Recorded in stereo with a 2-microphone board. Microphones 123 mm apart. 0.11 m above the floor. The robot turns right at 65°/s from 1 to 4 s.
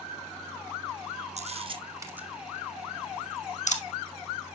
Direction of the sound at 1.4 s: 65° right (ahead or behind).